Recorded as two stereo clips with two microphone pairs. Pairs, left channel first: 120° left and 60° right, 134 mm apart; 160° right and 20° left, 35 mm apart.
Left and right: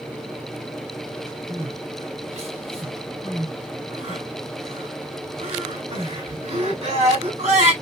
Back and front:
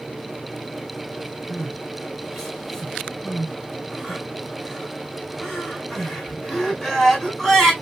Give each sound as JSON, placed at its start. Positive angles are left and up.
{"t": 1.5, "sound": "crying", "azimuth_deg": -70, "distance_m": 2.5}